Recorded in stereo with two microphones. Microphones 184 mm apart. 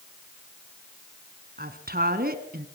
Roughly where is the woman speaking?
Right.